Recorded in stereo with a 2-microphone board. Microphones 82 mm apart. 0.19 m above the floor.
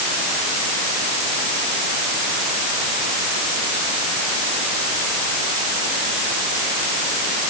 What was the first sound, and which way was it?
Only background noise.